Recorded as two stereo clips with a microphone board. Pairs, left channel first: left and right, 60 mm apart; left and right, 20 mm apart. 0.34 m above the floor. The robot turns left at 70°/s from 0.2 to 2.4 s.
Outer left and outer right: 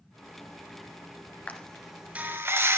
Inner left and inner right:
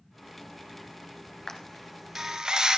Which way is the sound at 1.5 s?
25° left (ahead or behind).